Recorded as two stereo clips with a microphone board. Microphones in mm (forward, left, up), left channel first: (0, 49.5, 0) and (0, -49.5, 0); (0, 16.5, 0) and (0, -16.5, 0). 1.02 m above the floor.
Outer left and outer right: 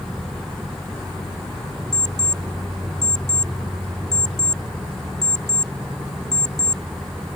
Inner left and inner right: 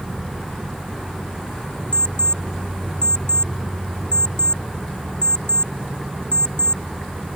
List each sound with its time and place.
1.9 s an alarm clock: 40° left (ahead or behind)